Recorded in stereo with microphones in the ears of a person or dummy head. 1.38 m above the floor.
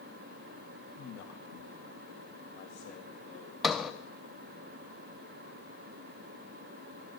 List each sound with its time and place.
1.0 s a man speaking: 70° left (ahead or behind), 1.0 m; by 3.5 s 75° left (ahead or behind), 2.5 m
3.6 s a sliding door: centre (ahead or behind), 0.5 m